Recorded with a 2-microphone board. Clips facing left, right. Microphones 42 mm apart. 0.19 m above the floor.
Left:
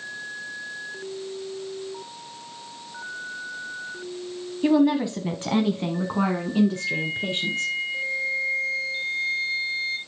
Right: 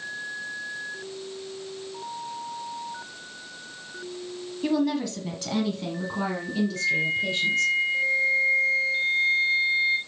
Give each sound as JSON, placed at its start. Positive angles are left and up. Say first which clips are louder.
{"t": 4.6, "sound": "a woman speaking", "louder": "left 5 dB", "side_deg": 20, "distance_m": 1.0}
{"t": 6.8, "sound": "a flute", "louder": "right 3 dB", "side_deg": -30, "distance_m": 0.7}